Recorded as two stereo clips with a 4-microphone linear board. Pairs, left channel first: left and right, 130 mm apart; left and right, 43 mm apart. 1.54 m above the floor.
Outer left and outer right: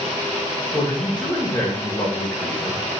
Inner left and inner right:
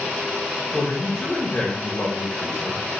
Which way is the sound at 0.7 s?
10° left (ahead or behind).